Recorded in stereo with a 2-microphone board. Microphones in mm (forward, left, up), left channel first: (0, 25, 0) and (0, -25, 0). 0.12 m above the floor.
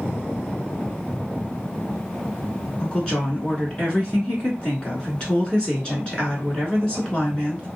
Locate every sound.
2.8 s a woman speaking: 20° left (ahead or behind), 1.4 m